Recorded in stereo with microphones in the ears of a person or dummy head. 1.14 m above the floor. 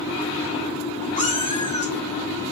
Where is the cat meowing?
30° left (ahead or behind), 0.9 m.